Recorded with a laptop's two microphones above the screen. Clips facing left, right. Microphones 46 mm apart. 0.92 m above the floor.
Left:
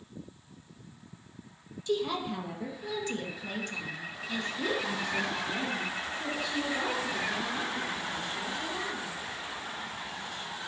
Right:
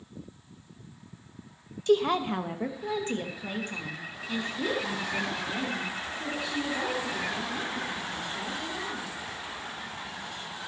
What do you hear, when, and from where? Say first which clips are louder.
1.9 s a woman speaking: right 7 dB; 50° right (ahead or behind), 0.9 m; by 9.2 s 5° right (ahead or behind), 4 m